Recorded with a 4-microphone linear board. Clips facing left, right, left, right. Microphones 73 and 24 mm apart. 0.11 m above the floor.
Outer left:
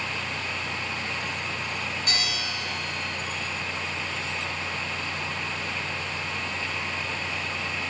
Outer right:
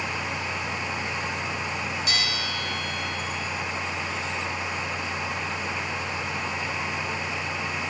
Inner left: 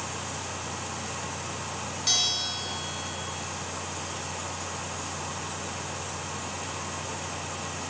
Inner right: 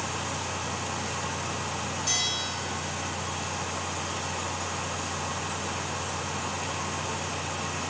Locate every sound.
2.1 s a bell: 40° left (ahead or behind), 5 m